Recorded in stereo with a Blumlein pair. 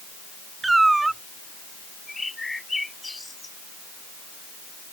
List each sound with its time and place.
0.6 s a cat meowing: 10° right
2.1 s a bird: 10° left